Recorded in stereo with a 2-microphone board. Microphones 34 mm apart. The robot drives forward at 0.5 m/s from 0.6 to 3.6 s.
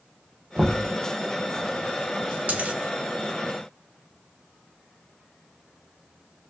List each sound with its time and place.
0.6 s knocking: 40° right (ahead or behind), 0.8 m; by 0.9 s 50° right (ahead or behind), 0.7 m
2.5 s a dropped coin: 50° right (ahead or behind), 1.0 m; by 2.8 s 45° right (ahead or behind), 1.1 m